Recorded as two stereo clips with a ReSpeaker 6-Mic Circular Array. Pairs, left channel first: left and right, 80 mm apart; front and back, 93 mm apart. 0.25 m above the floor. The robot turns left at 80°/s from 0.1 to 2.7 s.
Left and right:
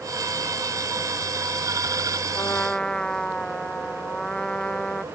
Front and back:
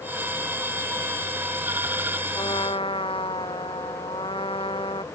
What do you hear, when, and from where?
2.4 s a trumpet: 40° left; by 5.0 s 10° left